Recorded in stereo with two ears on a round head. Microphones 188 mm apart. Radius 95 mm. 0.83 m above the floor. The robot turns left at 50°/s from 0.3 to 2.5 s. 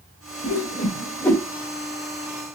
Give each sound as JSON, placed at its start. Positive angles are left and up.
{"t": 0.4, "sound": "a whoosh", "side_deg": 50, "distance_m": 1.9}